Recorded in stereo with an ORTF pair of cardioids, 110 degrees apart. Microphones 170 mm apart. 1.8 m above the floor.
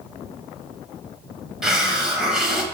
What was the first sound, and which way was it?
A hiss, 5° right.